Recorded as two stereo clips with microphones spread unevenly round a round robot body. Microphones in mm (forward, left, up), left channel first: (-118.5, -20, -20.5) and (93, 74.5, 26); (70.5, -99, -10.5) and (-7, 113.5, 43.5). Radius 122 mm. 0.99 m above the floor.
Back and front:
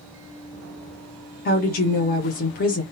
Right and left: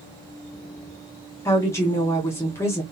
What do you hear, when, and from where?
1.4 s a woman speaking: 130° right, 0.8 m